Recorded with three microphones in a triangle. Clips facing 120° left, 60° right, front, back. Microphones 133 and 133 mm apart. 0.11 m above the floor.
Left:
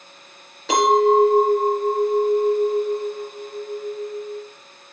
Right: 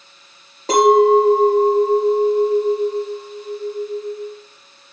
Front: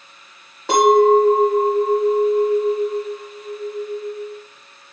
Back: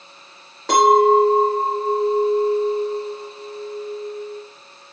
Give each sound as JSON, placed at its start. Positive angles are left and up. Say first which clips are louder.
{"t": 0.7, "sound": "a clink", "louder": "right 4 dB, front 1 dB", "azimuth_deg": -80, "distance_m": 1.5}